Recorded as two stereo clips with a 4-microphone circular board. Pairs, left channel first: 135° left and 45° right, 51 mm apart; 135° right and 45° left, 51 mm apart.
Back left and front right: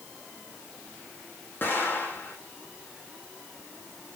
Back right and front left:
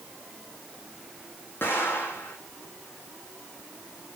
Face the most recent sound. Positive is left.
turn(degrees=180)